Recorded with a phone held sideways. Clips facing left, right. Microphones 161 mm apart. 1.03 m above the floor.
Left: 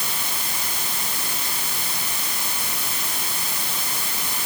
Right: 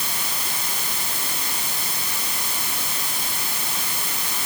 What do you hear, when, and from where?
Only background noise.